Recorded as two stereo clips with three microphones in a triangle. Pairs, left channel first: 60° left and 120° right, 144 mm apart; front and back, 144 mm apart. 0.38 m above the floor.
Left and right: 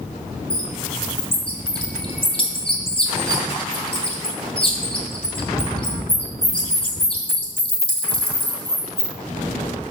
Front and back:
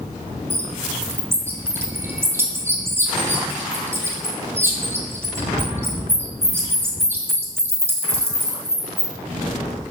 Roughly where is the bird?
Left.